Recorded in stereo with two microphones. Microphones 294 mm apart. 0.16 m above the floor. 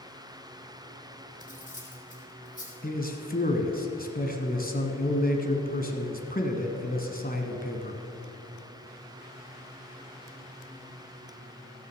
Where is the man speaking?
30° left (ahead or behind), 1.2 m.